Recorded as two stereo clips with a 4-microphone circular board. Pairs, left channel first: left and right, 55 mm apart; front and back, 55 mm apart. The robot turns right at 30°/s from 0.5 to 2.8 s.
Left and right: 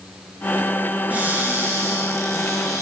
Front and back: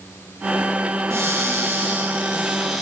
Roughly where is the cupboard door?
Behind right.